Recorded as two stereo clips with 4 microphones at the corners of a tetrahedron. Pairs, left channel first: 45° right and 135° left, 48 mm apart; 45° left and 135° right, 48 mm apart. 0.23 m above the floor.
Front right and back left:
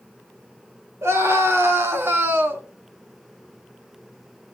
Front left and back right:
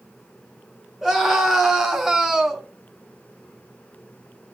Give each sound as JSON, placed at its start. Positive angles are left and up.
{"t": 1.0, "sound": "a scream", "azimuth_deg": 145, "distance_m": 4.0}